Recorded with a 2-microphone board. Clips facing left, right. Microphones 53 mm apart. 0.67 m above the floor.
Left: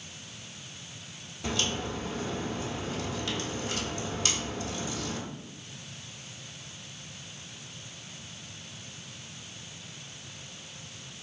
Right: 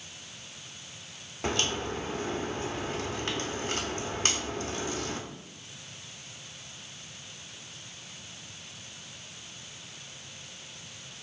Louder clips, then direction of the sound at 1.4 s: Right 2 dB; 45° right (ahead or behind).